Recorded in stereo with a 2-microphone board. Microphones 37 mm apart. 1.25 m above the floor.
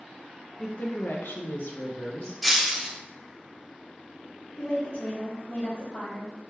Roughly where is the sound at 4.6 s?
Left.